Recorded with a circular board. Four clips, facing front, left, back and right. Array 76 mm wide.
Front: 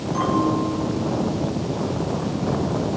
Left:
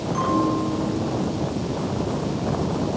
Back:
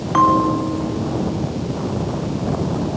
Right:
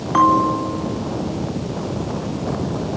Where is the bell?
130° right, 7 m.